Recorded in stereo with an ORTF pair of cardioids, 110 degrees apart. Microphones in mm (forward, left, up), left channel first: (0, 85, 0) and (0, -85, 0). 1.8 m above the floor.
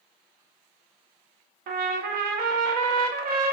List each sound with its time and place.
1.7 s a trumpet: 60° right, 0.5 m